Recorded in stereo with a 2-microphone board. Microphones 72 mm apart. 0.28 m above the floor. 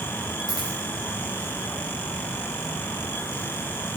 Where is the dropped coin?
80° left, 2.5 m.